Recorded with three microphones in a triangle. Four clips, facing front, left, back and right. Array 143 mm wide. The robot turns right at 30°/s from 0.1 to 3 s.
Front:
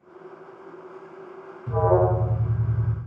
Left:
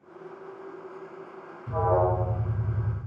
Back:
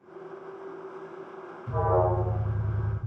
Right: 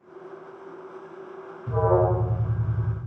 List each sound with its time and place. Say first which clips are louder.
1.7 s an alarm: right 2 dB, front 5 dB; 30° right, 1.8 m; by 3.0 s 10° left, 1.8 m